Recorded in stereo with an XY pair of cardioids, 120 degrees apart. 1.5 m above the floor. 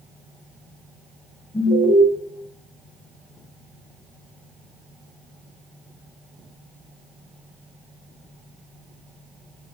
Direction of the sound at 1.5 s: 30° left.